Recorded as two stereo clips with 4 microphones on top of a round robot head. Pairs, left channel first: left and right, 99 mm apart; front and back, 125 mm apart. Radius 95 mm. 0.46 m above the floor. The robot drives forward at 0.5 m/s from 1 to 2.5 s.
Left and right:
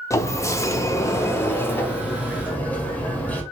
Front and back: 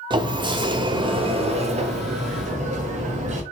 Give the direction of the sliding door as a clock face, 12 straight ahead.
7 o'clock.